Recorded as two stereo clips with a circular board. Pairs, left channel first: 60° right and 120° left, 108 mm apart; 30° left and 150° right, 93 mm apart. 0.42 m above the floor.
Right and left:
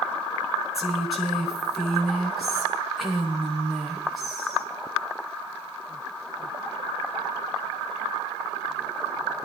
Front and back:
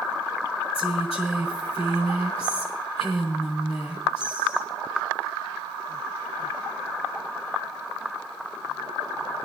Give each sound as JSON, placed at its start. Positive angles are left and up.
{"t": 0.7, "sound": "a woman speaking", "azimuth_deg": 30, "distance_m": 8.5}